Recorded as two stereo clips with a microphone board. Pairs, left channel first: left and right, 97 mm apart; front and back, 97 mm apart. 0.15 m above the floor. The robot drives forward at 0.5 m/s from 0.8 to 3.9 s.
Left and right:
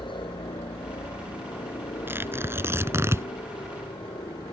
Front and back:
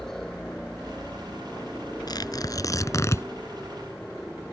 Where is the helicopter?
85° left.